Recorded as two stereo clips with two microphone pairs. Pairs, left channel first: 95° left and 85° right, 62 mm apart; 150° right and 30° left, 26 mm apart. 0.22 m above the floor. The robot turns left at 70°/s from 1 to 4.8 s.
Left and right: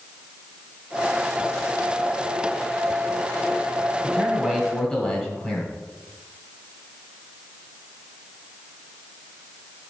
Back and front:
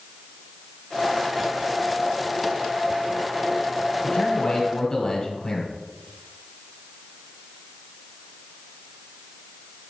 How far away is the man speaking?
About 1.4 m.